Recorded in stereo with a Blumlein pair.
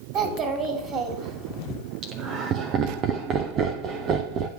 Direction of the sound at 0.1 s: 30° right.